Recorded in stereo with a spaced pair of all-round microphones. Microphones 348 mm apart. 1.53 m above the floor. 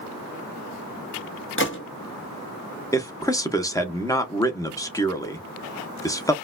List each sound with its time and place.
1.6 s a gunshot: 35° left (ahead or behind), 1.0 m
2.9 s a man speaking: 10° left (ahead or behind), 0.8 m